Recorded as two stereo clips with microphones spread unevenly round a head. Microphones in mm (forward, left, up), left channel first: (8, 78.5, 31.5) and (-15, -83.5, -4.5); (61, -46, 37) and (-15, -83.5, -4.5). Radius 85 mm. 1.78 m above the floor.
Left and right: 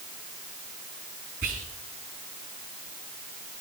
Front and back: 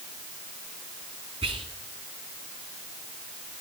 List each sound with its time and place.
1.4 s whispering: 145° right, 3.5 m